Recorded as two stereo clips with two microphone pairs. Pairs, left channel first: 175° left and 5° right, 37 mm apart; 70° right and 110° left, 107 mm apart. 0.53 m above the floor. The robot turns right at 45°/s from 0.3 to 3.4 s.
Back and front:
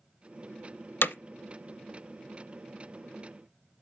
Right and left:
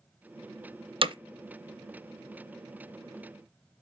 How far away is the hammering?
About 0.6 m.